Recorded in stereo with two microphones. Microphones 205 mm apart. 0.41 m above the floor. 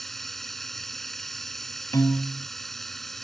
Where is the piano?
15° left (ahead or behind).